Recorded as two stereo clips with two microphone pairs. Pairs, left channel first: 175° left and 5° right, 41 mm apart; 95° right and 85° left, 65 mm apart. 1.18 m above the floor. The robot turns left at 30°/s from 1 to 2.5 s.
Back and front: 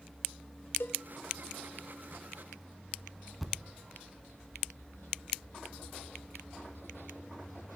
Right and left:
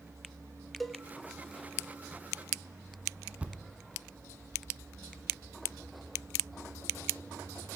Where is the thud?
90° left, 1.1 m.